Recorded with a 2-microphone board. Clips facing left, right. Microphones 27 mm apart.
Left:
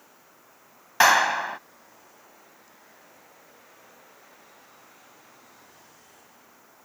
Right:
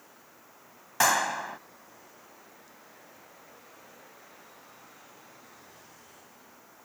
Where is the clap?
35° left (ahead or behind).